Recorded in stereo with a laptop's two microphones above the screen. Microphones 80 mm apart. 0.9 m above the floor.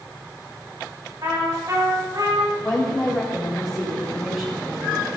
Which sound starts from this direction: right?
A trumpet, at 1.2 s.